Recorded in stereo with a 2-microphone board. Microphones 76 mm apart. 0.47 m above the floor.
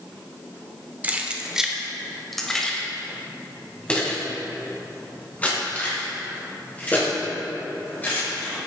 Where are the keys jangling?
25° right (ahead or behind), 1.0 m; by 8.5 s 20° left (ahead or behind), 6 m.